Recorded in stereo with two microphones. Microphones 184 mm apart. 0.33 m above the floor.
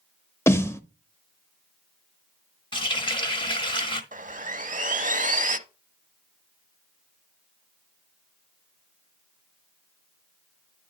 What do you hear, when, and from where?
0.5 s a snare drum: 15° left (ahead or behind), 0.7 m
2.7 s a running tap: 30° left (ahead or behind), 1.1 m
4.1 s sawing: 50° right (ahead or behind), 0.6 m